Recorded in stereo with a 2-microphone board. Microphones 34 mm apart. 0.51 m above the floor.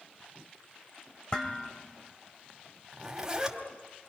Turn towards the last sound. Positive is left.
turn(degrees=-15)  # may be behind; listen again after turning